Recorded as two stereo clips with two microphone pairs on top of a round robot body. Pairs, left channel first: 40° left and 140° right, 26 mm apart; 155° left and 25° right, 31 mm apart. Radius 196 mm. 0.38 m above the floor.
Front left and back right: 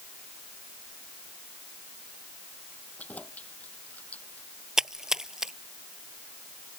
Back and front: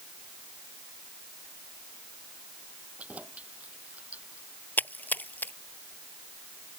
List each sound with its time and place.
3.0 s keys jangling: 15° left; by 4.5 s 10° left
4.8 s a splash: 155° left